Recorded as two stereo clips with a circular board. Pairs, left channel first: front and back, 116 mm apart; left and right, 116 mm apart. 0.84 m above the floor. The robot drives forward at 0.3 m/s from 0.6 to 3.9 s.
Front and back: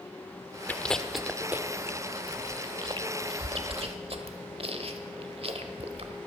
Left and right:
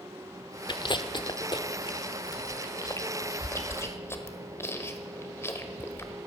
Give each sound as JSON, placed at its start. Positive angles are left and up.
{"t": 0.7, "sound": "chewing", "azimuth_deg": 70, "distance_m": 0.6}